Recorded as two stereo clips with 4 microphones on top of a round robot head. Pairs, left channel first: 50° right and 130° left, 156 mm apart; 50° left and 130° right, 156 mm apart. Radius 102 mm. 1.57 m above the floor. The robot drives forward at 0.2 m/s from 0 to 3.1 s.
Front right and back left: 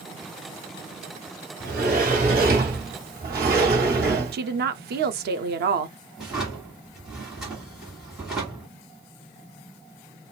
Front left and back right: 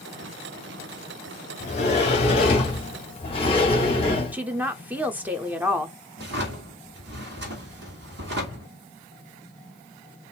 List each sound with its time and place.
1.6 s a sliding door: 100° left, 2 m; by 4.3 s 105° left, 2 m
4.3 s a woman speaking: 150° left, 0.7 m
6.2 s a drawer: 140° right, 1.7 m